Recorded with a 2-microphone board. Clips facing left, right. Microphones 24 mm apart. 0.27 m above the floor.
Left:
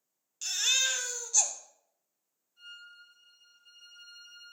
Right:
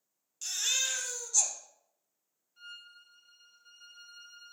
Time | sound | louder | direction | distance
0.4 | a baby crying | left 4 dB | 25° left (ahead or behind) | 0.9 m
2.6 | a violin | even | 50° right (ahead or behind) | 2.5 m